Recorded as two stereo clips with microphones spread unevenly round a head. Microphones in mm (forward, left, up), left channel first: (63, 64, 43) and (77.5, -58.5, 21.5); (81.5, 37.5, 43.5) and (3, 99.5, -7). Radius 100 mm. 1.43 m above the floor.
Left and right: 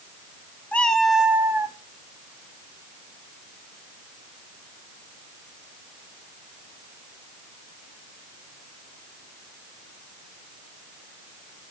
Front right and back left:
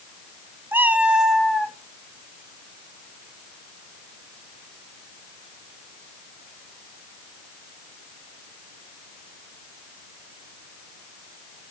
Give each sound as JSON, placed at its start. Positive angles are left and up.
{"t": 0.7, "sound": "a cat meowing", "azimuth_deg": 45, "distance_m": 1.2}